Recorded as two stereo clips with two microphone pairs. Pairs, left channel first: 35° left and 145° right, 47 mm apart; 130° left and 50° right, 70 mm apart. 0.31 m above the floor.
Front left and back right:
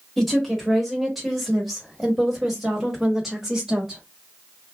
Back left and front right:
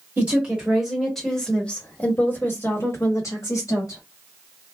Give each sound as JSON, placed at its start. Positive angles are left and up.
{"t": 0.2, "sound": "a woman speaking", "azimuth_deg": -50, "distance_m": 1.4}